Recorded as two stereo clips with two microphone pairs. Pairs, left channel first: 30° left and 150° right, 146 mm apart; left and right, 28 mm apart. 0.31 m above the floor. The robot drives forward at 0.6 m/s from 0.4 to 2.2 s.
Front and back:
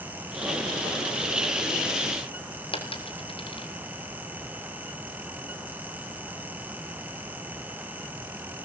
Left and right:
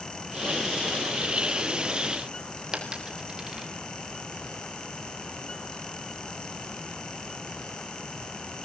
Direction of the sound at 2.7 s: 25° right.